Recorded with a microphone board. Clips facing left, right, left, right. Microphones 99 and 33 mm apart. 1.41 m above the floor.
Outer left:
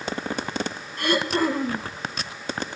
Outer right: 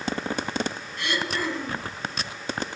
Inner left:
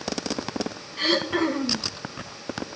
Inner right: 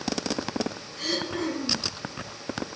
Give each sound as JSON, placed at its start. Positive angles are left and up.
{"t": 1.0, "sound": "throat clearing", "side_deg": 45, "distance_m": 1.5}